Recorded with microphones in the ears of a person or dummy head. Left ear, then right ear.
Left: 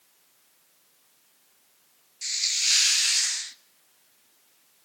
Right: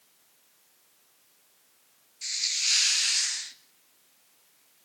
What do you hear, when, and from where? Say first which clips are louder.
2.2 s a hiss: left 2 dB; 10° left (ahead or behind), 0.6 m